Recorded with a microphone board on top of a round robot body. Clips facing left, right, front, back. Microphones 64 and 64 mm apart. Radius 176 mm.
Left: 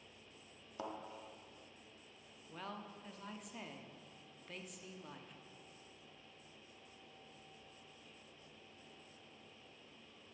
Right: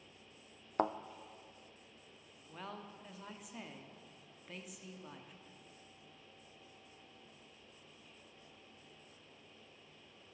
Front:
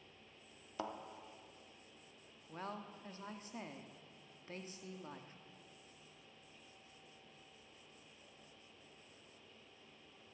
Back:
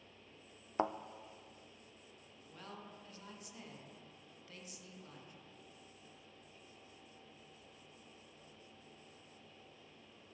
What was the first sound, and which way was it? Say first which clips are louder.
A thud: right 11 dB, back 8 dB; 125° right.